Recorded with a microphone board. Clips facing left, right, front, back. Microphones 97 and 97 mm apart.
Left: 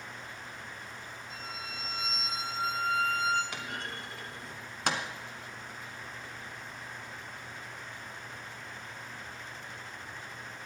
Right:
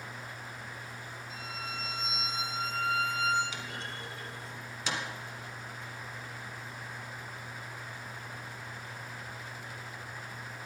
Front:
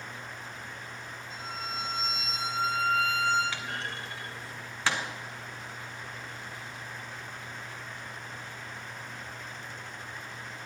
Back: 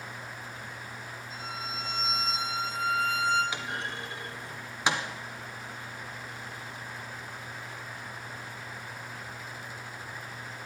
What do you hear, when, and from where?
1.3 s a violin: 35° left, 5 m
3.5 s a clunk: 110° left, 1.5 m